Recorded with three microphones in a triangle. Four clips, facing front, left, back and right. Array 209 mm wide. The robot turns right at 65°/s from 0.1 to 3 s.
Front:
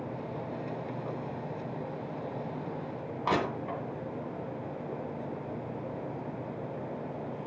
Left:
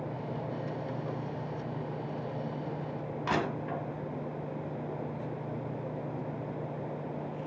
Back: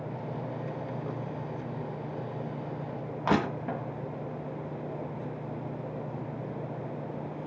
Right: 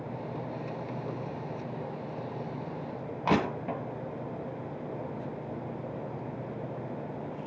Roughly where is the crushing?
Behind right.